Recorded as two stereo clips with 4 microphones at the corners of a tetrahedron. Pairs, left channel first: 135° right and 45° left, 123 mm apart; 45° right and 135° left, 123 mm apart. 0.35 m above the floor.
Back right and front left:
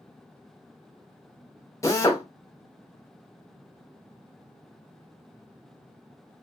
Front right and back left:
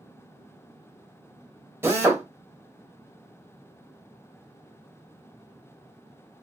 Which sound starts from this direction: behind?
A drill, at 1.8 s.